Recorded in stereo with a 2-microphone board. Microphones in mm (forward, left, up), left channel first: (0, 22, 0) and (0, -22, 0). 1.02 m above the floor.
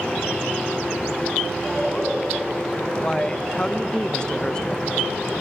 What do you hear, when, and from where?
1.6 s laughter: centre (ahead or behind), 7 m
3.0 s a man speaking: 20° left (ahead or behind), 0.7 m